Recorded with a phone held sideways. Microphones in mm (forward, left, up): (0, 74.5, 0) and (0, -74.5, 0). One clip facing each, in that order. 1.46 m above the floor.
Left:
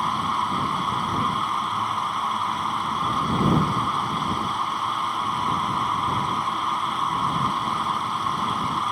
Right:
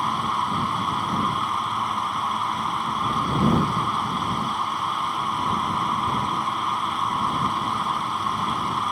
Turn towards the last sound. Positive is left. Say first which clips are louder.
# even
turn(degrees=0)  # may be behind; listen again after turning